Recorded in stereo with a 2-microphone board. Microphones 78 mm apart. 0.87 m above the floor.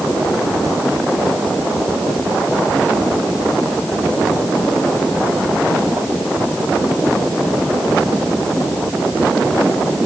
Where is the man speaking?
I don't hear a man speaking.